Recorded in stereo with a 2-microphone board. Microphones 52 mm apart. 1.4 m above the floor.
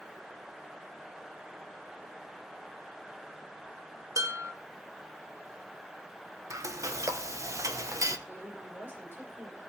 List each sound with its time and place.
4.2 s dishes clattering: 75° right (ahead or behind), 1.6 m
6.5 s frying: 80° right, 1.1 m
8.3 s a woman speaking: 45° right (ahead or behind), 6 m